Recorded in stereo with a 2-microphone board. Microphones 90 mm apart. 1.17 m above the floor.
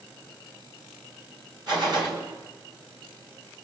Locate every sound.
1.7 s a gunshot: 50° right (ahead or behind), 6.5 m